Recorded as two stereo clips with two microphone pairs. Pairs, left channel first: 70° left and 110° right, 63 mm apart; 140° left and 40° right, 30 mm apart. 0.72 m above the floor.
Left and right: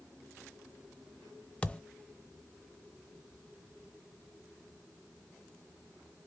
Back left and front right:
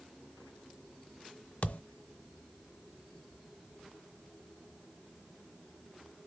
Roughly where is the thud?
Behind left.